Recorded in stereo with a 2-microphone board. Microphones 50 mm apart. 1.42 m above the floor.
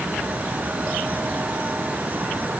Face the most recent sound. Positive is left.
No sound to turn to.